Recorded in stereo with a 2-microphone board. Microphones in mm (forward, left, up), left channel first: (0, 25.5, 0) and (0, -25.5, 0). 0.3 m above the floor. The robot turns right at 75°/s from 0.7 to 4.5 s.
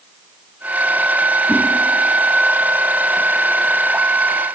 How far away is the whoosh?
About 8 m.